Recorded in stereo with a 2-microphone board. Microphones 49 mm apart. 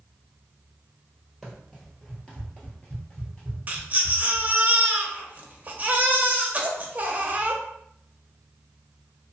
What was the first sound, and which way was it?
Running footsteps, 10° left (ahead or behind).